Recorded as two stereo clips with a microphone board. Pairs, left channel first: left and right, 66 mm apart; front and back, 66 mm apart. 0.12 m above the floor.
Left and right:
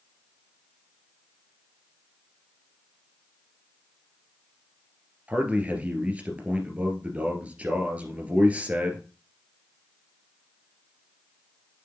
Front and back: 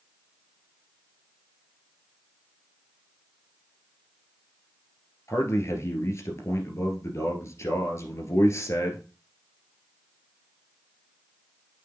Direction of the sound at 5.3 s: 25° right.